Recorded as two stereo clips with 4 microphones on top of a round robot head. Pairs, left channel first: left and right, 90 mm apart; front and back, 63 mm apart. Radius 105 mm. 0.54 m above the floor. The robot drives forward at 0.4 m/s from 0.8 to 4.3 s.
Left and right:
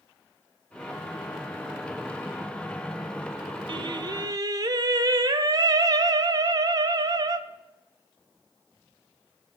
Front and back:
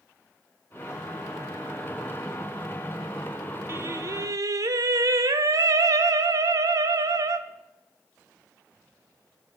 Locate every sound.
3.7 s singing: 125° right, 0.6 m; by 7.4 s 140° right, 0.8 m